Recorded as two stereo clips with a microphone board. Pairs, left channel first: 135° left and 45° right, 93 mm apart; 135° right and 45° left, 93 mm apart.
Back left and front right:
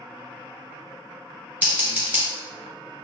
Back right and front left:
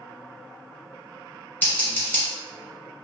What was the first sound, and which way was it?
Scissors, 95° right.